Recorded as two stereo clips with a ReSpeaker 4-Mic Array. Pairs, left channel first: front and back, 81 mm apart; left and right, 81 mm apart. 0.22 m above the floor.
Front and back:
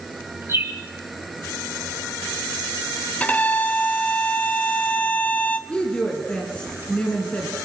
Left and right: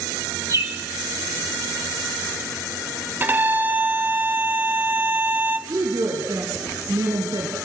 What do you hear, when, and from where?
0.5 s a bird: 130° right, 3 m
3.2 s a violin: 55° right, 1.7 m
5.7 s a woman speaking: 70° right, 3 m